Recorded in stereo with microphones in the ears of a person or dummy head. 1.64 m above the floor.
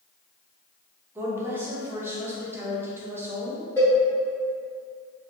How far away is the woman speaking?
About 0.8 m.